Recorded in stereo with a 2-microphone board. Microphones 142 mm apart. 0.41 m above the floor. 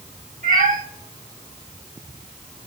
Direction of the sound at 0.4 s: 80° right.